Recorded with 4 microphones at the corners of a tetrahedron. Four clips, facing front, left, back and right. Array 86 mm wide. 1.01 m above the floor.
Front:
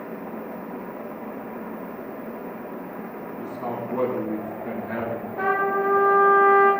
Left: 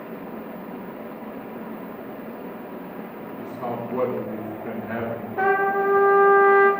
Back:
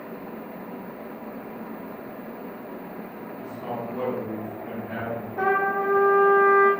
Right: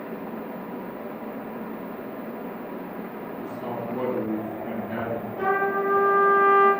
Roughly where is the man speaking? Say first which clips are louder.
Left 3 dB, front 2 dB; ahead left.